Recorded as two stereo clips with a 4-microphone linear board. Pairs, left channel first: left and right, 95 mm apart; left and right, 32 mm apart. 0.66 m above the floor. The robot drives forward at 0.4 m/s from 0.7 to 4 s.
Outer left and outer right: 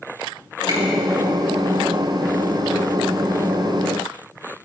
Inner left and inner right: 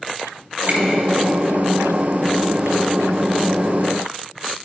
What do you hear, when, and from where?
0.7 s a finger snap: 50° right (ahead or behind), 4.5 m